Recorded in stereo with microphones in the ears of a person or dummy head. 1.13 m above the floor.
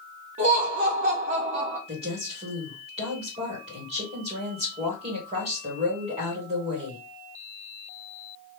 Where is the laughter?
30° right (ahead or behind), 1.1 m.